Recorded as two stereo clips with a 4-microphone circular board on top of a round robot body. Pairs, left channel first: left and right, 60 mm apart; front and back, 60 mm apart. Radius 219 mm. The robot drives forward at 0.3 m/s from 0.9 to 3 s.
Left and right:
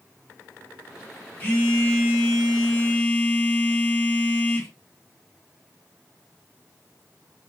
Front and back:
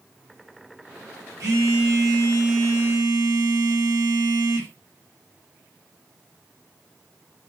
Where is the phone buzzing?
155° left, 1.1 m; by 4.7 s 160° left, 1.5 m.